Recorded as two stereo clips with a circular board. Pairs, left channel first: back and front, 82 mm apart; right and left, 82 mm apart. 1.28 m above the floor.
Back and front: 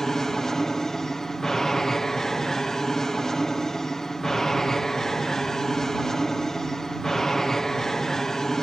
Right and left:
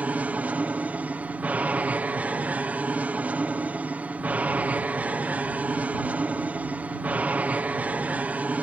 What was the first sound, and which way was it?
An aircraft, 105° left.